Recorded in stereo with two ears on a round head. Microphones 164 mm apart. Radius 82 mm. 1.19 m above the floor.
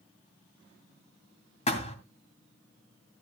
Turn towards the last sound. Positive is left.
turn(degrees=35)  # may be behind; listen again after turning